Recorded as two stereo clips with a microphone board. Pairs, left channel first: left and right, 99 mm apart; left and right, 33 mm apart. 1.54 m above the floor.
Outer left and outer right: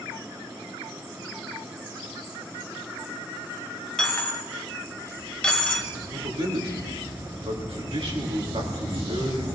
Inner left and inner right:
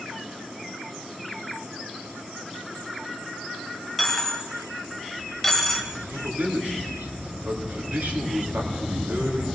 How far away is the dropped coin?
About 1.7 m.